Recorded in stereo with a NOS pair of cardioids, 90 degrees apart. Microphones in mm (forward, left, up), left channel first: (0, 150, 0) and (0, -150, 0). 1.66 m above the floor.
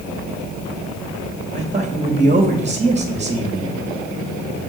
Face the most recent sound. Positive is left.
turn(degrees=-20)